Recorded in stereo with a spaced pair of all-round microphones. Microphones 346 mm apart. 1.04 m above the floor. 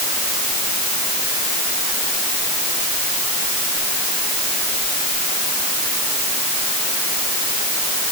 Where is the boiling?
I don't hear boiling.